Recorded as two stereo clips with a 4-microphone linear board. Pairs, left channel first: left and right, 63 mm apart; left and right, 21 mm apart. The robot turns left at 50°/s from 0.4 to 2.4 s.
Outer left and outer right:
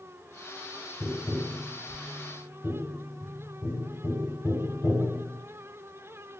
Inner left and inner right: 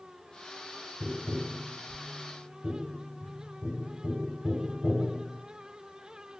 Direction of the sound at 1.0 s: 30° right (ahead or behind).